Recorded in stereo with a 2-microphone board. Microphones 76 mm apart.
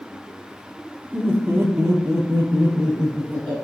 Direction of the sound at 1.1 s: 5° right (ahead or behind).